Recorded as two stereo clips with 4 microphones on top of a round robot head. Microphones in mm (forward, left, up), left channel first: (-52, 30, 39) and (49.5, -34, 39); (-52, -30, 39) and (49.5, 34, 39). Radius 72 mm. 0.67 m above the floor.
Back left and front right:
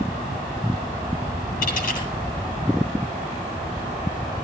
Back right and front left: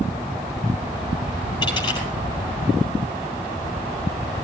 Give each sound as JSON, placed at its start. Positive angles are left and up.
{"t": 1.6, "sound": "a dropped coin", "azimuth_deg": 155, "distance_m": 9.0}